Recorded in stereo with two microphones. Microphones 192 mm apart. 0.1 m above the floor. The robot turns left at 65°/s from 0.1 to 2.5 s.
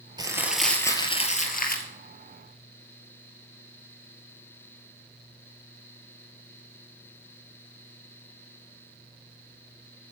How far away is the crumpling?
About 1.7 m.